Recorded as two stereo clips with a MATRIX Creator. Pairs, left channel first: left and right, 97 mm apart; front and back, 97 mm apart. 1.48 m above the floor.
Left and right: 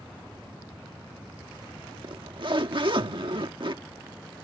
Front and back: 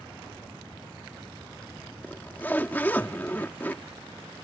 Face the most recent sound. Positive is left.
turn(degrees=-70)